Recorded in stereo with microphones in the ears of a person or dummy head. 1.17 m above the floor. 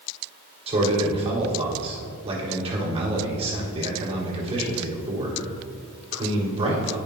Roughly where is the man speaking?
Right.